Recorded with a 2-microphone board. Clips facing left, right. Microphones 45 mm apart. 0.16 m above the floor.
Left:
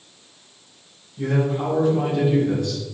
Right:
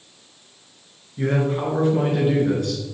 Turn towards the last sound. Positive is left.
turn(degrees=-55)  # may be behind; listen again after turning